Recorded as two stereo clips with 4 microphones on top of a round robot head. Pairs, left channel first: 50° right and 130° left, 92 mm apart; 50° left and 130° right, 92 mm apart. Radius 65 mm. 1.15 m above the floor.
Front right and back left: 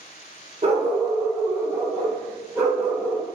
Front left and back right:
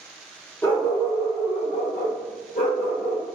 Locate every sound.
0.6 s a dog barking: 120° left, 0.7 m; by 3.2 s 50° left, 2 m